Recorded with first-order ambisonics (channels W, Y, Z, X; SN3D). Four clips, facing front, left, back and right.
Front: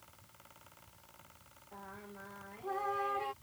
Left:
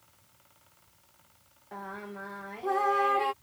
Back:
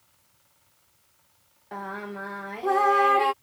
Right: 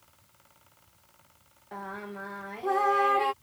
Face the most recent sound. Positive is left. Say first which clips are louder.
# right 2 dB, back 16 dB
turn(degrees=-170)